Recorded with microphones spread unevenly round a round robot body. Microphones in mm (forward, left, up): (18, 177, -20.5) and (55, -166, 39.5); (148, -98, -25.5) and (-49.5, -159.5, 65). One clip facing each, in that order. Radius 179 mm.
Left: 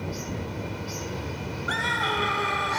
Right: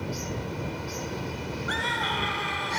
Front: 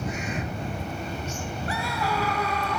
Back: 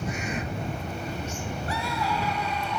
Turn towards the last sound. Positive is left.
turn(degrees=65)